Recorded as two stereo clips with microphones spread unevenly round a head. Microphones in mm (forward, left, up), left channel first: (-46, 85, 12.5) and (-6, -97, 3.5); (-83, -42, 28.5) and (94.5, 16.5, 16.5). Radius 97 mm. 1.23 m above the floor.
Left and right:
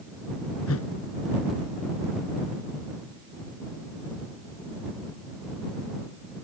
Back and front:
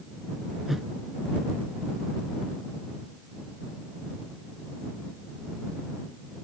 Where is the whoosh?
105° left.